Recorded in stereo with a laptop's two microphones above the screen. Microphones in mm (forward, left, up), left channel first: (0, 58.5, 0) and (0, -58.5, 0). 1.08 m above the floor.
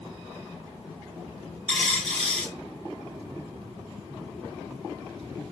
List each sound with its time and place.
1.7 s a dropped coin: 65° right (ahead or behind), 1.9 m